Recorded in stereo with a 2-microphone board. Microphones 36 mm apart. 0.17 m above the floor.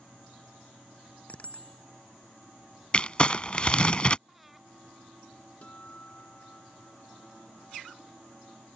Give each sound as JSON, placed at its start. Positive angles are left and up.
{"t": 1.3, "sound": "a bicycle bell", "side_deg": 40}
{"t": 2.9, "sound": "crumpling", "side_deg": 30}
{"t": 4.3, "sound": "breathing", "side_deg": -5}
{"t": 5.6, "sound": "a guitar", "side_deg": 40}